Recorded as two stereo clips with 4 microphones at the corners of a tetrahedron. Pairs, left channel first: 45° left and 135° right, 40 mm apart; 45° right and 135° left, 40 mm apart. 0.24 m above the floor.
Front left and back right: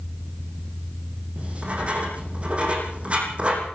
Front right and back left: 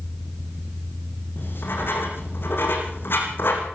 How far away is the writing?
About 6.5 m.